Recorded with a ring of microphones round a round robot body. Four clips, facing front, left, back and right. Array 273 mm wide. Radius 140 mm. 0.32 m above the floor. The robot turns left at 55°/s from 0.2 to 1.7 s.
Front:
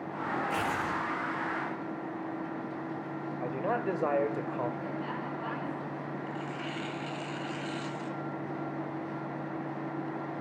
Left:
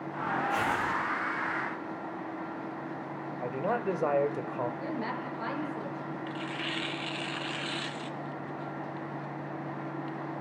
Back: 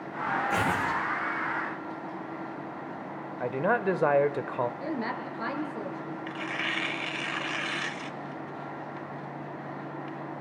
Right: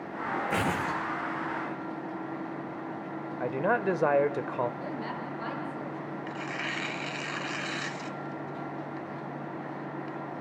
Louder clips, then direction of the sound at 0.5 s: Even, back 4 dB; 105° right.